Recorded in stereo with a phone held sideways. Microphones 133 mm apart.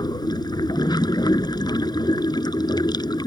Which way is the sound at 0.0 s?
30° left (ahead or behind).